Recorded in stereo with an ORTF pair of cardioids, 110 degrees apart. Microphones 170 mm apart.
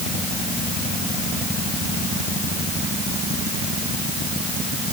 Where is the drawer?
No drawer in this recording.